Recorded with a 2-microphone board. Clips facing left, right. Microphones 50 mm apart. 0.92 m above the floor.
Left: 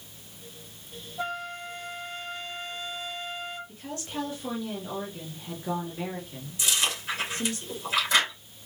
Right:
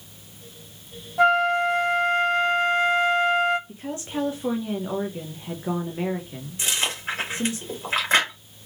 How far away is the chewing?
About 2.5 m.